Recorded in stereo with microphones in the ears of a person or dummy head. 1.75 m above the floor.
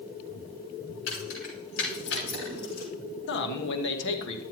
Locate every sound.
1.1 s keys jangling: 80° left, 5.5 m; by 2.9 s 60° left (ahead or behind), 6 m
3.3 s a man speaking: 65° left (ahead or behind), 1.1 m